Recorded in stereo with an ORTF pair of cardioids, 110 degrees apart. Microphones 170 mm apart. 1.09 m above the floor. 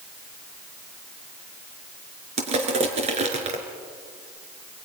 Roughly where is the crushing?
Ahead right.